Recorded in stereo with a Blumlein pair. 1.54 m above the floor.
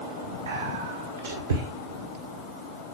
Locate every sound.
0.5 s whispering: 65° right, 1.9 m